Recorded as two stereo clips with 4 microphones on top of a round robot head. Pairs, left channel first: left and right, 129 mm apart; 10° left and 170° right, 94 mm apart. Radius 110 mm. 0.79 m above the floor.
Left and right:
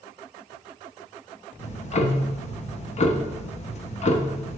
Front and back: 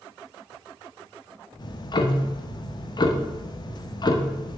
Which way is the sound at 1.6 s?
55° left.